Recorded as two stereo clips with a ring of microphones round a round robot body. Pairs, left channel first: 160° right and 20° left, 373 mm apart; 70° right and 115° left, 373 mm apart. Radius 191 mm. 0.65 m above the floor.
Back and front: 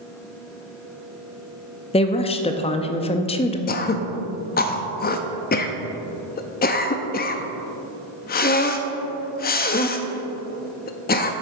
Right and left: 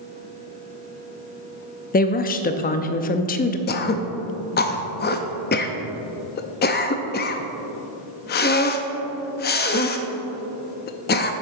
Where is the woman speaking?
100° right, 0.5 m.